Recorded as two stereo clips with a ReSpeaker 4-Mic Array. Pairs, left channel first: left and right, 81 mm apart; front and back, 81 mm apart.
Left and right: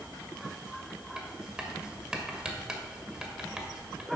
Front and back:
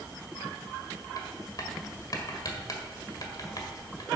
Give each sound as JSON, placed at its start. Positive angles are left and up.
{"t": 1.2, "sound": "writing", "azimuth_deg": -15, "distance_m": 1.7}